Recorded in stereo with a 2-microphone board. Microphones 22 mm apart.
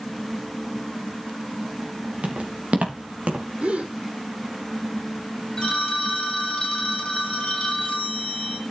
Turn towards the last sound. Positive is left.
turn(degrees=30)  # may be behind; listen again after turning